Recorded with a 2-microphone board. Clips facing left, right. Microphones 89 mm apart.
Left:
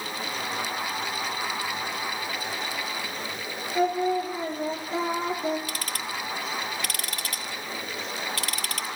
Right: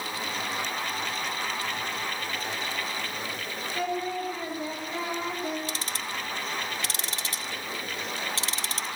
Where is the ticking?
25° right (ahead or behind), 1.0 m.